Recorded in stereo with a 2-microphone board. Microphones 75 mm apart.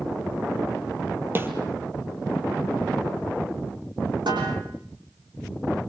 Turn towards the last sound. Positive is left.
turn(degrees=-85)